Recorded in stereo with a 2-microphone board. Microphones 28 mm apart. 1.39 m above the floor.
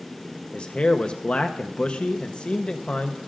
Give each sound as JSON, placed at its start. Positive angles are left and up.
{"t": 0.5, "sound": "a man speaking", "side_deg": 40, "distance_m": 0.7}